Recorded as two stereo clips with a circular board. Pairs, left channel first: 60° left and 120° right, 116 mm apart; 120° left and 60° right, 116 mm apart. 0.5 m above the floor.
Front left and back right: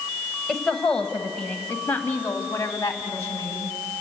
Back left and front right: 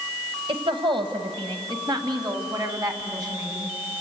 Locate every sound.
0.5 s a woman speaking: 30° right, 2 m; by 3.8 s 5° right, 3.5 m